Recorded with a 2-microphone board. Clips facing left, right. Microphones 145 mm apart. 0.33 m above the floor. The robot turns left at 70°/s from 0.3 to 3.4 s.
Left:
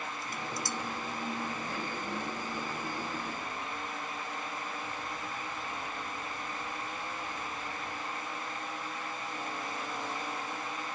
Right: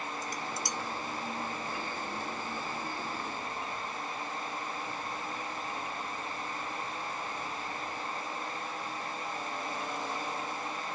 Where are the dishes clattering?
45° right (ahead or behind); by 0.8 s 10° right (ahead or behind).